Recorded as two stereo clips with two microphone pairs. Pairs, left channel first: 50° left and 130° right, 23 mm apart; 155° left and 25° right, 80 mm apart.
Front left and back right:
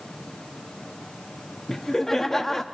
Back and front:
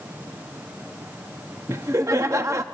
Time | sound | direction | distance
1.7 | laughter | 15° right | 0.7 m